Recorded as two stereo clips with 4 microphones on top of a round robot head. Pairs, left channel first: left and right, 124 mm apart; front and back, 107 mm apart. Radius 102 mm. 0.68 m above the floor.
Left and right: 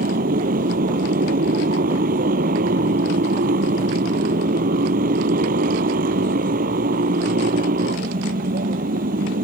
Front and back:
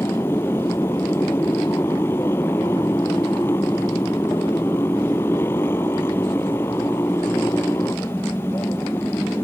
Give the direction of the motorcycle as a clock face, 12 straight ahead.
3 o'clock.